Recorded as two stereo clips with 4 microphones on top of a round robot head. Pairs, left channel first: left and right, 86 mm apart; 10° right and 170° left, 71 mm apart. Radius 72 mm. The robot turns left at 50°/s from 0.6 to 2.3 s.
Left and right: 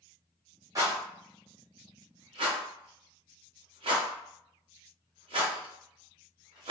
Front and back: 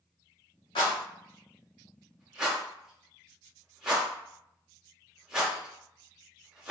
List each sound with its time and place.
0.8 s a rattle: 30° right, 0.8 m; by 6.7 s 110° right, 0.8 m